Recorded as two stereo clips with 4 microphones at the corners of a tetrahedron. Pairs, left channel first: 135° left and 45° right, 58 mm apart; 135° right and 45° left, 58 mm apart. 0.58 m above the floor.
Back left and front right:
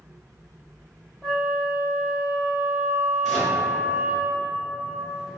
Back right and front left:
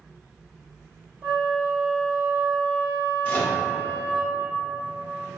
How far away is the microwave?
About 0.9 m.